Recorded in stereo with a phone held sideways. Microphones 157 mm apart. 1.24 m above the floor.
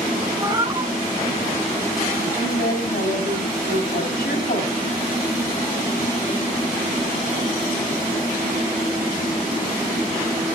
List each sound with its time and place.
0.4 s a cat meowing: 30° right (ahead or behind), 2 m
2.2 s a woman speaking: 80° left, 7.5 m